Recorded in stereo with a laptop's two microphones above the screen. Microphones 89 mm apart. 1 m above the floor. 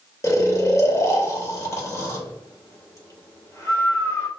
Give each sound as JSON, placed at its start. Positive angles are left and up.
{"t": 0.2, "sound": "snoring", "side_deg": 35, "distance_m": 0.9}